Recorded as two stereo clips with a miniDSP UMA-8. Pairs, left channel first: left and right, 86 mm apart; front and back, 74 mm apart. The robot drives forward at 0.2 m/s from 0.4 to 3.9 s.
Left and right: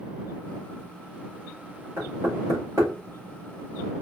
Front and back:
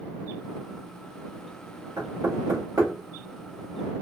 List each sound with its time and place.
2.0 s knocking: 140° right, 2 m